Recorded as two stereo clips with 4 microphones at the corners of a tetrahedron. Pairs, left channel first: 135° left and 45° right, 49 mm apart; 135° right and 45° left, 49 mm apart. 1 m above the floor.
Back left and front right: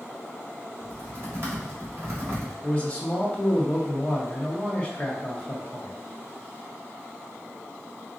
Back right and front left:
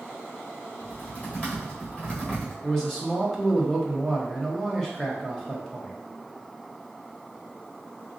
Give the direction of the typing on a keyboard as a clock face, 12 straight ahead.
3 o'clock.